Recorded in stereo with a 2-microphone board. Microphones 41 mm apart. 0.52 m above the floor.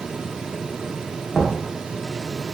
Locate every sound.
1.3 s knocking: 10° left (ahead or behind), 0.7 m